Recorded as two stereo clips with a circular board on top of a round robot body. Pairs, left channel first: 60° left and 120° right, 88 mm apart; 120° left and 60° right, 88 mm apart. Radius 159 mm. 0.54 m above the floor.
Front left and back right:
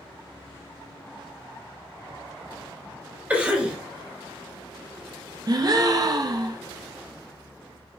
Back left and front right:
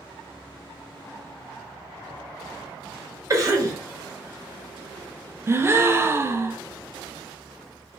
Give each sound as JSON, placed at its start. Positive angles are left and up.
{"t": 3.3, "sound": "a cough", "azimuth_deg": -55, "distance_m": 1.2}
{"t": 5.5, "sound": "a gasp", "azimuth_deg": -105, "distance_m": 0.6}